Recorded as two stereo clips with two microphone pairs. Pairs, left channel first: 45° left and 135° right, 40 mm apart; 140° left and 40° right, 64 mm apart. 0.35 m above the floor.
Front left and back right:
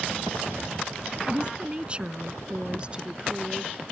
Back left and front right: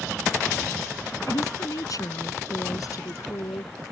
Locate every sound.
1.3 s a woman speaking: 165° left; by 3.7 s 160° left